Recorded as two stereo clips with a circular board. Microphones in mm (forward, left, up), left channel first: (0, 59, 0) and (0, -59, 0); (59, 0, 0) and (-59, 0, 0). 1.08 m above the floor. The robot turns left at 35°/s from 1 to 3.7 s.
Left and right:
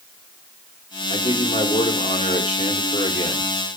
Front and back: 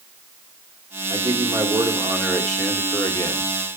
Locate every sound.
1.1 s a man speaking: 135° left, 2.5 m; by 3.5 s 50° left, 2.5 m